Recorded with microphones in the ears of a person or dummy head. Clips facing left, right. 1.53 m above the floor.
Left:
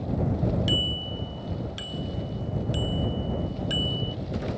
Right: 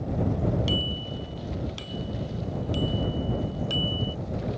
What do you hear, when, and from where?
0.7 s a bicycle bell: 10° left (ahead or behind); by 4.2 s 20° left (ahead or behind)